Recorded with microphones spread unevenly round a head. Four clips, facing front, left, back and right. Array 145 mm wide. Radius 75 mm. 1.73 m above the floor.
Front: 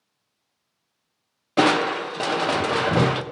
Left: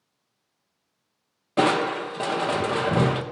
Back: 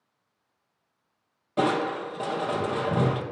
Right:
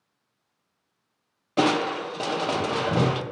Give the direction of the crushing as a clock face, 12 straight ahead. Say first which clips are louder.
Left 1 dB, front 5 dB; 12 o'clock.